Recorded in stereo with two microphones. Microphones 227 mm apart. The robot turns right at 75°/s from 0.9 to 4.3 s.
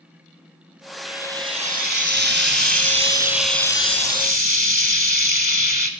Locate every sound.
1.1 s frying: straight behind, 1.2 m; by 5.9 s 65° left, 1.2 m